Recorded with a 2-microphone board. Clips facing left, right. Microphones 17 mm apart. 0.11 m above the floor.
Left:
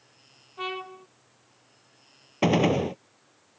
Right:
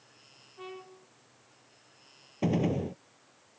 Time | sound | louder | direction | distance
0.6 | a trumpet | left 11 dB | 55° left (ahead or behind) | ?
2.4 | a gunshot | left 7 dB | 55° left (ahead or behind) | ?